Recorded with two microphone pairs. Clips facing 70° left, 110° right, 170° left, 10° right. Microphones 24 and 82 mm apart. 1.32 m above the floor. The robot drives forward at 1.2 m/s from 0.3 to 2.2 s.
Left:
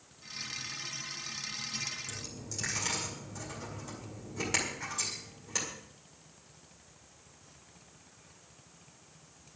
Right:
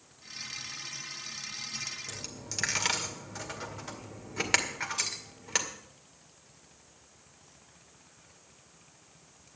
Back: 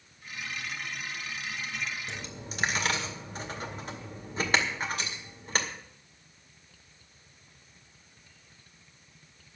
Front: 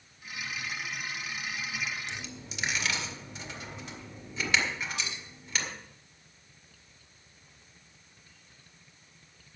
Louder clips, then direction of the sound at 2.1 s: Right 1 dB, back 1 dB; 145° right.